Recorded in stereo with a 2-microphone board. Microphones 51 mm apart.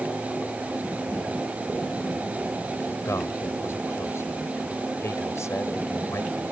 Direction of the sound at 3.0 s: 70° left (ahead or behind).